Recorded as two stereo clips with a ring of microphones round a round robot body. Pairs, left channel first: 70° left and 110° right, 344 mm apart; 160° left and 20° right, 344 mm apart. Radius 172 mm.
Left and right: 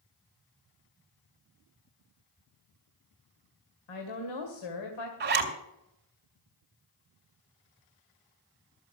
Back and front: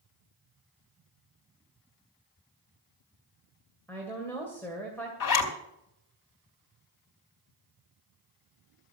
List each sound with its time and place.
3.9 s a woman speaking: 75° left, 2.5 m
5.2 s a zipper: 175° right, 2.5 m